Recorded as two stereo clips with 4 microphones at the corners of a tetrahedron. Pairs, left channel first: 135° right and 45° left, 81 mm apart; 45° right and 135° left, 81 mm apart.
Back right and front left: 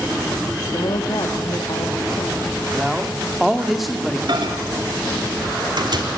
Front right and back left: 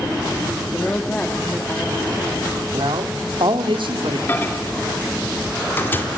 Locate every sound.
0.6 s a woman speaking: 115° right, 1.8 m
2.7 s a man speaking: 135° left, 1.9 m
4.3 s a microwave: 20° left, 2 m